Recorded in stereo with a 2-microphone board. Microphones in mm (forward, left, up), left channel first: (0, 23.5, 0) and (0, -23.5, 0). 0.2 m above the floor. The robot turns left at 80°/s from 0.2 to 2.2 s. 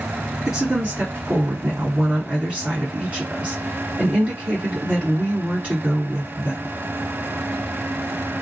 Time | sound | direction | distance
0.5 | a woman speaking | 10° right | 2 m